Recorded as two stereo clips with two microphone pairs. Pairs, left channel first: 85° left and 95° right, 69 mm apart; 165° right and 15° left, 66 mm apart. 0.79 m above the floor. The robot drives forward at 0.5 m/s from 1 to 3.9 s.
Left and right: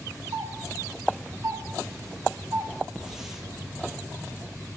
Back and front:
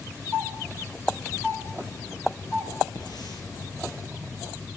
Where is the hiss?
175° right, 8.5 m.